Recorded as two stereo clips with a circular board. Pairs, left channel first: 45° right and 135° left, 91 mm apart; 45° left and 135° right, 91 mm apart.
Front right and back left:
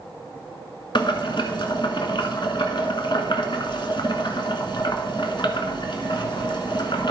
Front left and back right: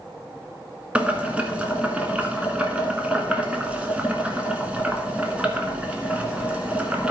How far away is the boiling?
About 1.2 m.